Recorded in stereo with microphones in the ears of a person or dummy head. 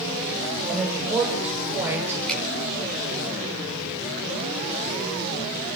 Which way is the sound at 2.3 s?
5° left (ahead or behind).